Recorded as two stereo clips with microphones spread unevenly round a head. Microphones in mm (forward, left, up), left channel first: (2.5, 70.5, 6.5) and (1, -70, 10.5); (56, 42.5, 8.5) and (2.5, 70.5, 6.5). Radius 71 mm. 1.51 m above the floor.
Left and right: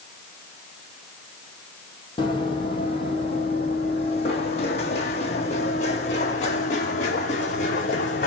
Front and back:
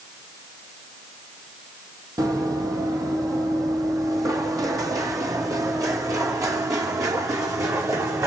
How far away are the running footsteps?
About 3.5 m.